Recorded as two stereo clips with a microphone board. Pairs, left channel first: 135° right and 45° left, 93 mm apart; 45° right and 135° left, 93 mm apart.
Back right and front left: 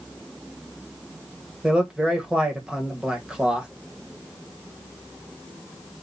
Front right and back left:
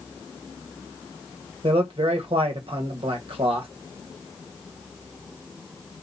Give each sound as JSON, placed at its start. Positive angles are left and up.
{"t": 1.6, "sound": "a man speaking", "azimuth_deg": 125, "distance_m": 1.4}